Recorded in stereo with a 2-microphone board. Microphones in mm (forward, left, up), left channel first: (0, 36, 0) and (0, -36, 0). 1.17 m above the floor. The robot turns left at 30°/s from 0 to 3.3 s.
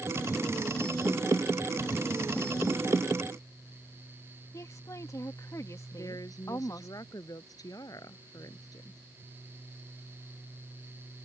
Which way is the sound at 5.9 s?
55° left (ahead or behind).